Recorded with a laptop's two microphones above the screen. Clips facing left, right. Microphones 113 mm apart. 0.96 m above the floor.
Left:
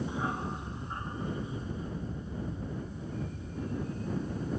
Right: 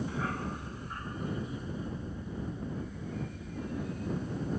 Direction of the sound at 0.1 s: 20° left (ahead or behind).